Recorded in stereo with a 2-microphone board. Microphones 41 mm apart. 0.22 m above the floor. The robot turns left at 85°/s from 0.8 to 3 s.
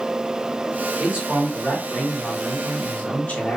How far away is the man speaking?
About 1.7 m.